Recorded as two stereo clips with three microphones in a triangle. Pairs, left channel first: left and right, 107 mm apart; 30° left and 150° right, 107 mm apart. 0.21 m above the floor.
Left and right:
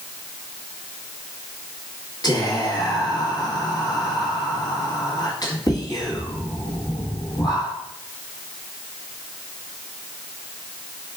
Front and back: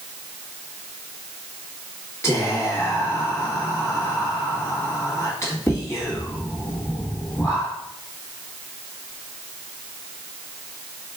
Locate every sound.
2.2 s whispering: 75° left, 1.5 m